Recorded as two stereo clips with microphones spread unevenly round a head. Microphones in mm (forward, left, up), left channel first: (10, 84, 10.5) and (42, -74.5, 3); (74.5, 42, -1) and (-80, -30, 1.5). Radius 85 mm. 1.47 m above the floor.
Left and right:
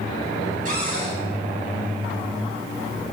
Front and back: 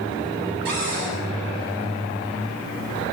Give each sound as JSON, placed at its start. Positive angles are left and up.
{"t": 0.7, "sound": "a cupboard door", "azimuth_deg": -125, "distance_m": 9.0}